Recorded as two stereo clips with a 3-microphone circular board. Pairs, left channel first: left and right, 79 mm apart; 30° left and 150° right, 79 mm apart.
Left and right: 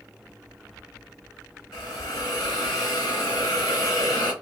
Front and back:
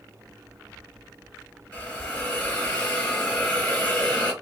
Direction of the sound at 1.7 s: 100° left.